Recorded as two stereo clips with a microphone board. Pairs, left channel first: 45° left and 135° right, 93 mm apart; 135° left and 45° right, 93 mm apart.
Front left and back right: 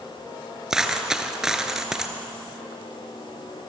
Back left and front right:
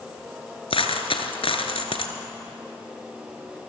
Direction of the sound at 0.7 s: 140° left.